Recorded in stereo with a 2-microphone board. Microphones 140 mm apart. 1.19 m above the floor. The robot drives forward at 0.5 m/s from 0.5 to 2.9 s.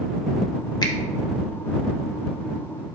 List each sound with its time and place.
0.8 s a finger snap: 35° left (ahead or behind), 0.5 m; by 0.9 s 30° left (ahead or behind), 0.6 m